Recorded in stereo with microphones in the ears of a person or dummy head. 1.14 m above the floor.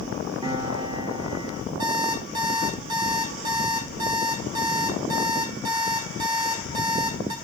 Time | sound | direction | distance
0.4 | a piano | 20° right (ahead or behind) | 2.5 m
1.8 | an alarm clock | 45° right (ahead or behind) | 3.5 m